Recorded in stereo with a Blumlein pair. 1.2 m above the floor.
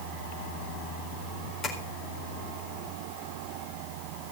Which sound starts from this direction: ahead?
Tapping, at 1.6 s.